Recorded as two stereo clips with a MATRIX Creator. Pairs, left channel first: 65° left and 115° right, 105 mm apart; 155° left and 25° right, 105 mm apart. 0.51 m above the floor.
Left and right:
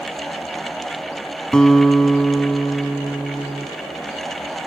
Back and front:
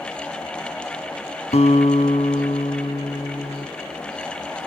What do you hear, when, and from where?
1.5 s a guitar: 150° left, 1.7 m